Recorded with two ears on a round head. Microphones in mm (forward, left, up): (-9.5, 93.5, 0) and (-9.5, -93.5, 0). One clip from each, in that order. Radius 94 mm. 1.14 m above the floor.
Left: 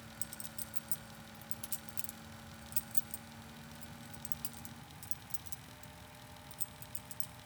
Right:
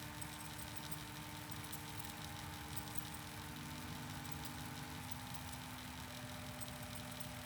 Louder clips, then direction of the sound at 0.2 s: Even; 70° left (ahead or behind).